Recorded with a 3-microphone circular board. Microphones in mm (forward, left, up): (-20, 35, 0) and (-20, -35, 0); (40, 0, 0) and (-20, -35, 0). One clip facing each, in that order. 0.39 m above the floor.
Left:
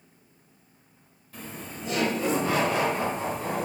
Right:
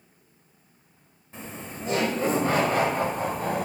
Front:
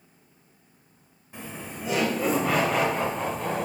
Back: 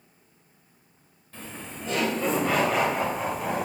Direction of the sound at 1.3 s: 35° right.